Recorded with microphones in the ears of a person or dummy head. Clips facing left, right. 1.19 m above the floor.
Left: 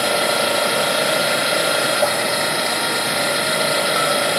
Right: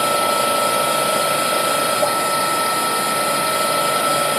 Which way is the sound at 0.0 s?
15° left (ahead or behind).